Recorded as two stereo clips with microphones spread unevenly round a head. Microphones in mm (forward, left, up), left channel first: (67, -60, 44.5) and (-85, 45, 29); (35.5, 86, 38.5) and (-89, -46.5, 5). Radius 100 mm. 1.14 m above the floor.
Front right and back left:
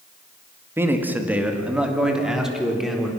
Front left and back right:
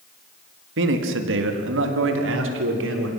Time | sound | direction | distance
0.8 | a man speaking | 135° right | 1.8 m